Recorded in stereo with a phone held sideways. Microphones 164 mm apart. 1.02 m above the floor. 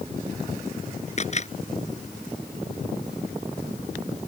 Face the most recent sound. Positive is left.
turn(degrees=45)  # may be behind; listen again after turning